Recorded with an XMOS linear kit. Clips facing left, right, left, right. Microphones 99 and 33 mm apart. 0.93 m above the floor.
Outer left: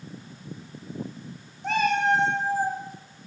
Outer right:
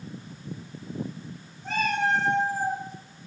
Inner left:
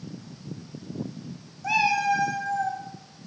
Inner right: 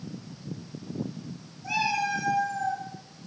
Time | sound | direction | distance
1.6 | a cat meowing | 75° left (ahead or behind) | 0.5 m